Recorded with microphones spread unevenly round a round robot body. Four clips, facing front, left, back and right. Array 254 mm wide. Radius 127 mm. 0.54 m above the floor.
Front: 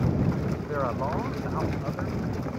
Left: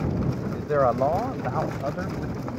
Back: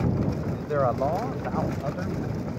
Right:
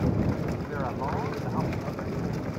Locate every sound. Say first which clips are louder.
0.5 s a man speaking: left 10 dB, back 4 dB; 110° left; by 2.6 s 115° left